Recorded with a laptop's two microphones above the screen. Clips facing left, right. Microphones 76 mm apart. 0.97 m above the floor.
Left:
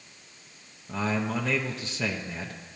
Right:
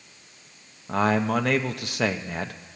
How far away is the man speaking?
About 0.6 m.